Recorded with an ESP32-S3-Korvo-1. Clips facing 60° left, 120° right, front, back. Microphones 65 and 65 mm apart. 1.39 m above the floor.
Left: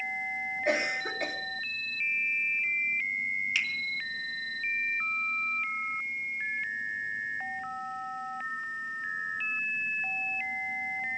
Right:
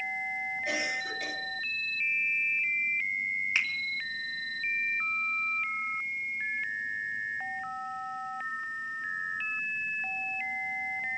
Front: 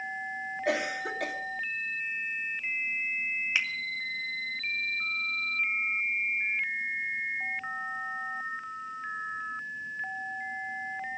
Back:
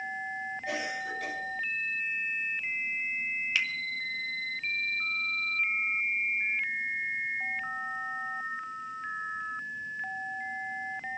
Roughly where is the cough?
Ahead.